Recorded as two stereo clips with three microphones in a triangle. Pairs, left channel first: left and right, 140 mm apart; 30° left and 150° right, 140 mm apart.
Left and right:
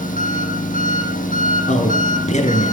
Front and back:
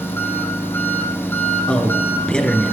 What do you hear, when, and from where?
0.0 s an engine running: 105° left, 2.5 m
1.7 s a man speaking: 115° left, 2.5 m